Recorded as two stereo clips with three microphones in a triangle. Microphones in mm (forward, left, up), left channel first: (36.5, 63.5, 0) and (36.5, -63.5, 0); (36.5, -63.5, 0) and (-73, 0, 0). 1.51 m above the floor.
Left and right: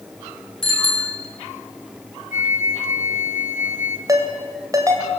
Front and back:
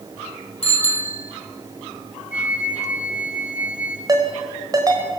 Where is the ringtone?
150° right, 3 m.